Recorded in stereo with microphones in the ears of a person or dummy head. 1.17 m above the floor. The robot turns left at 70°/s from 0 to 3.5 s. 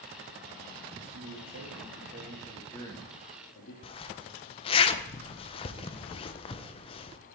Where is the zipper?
25° left (ahead or behind), 0.8 m.